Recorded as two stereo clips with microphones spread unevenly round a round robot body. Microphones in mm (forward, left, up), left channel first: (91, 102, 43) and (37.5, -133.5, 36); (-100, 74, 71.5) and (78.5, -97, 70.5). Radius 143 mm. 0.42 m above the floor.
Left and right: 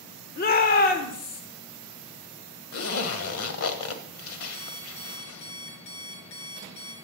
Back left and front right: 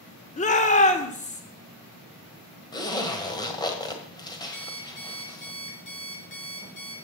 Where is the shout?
100° left, 1.3 m.